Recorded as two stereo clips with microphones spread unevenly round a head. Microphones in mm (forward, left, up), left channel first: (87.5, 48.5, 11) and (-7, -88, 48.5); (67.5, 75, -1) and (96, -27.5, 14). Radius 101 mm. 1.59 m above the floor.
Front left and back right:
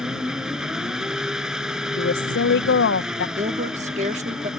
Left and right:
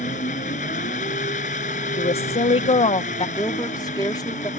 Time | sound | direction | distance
0.0 | an engine running | 150° left | ?
2.0 | a woman speaking | 80° left | ?
3.4 | a woman speaking | straight behind | ?